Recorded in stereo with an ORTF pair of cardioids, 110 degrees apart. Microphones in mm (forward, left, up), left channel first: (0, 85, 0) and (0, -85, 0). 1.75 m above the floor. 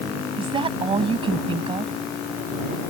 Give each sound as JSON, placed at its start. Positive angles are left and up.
{"t": 0.4, "sound": "a woman speaking", "azimuth_deg": -30}